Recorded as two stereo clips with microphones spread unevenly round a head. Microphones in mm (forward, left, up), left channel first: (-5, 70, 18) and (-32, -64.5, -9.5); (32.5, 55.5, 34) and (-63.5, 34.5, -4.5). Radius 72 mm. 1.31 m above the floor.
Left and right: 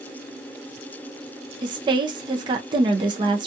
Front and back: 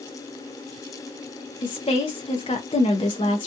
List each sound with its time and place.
1.6 s a woman speaking: 45° right, 0.6 m